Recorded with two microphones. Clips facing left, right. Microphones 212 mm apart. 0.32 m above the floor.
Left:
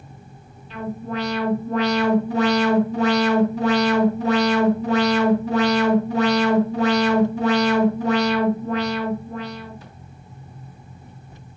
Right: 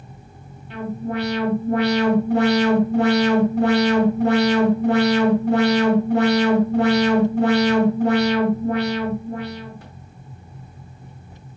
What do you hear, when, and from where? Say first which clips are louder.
0.7 s an alarm: right 2 dB; 55° right (ahead or behind), 3 m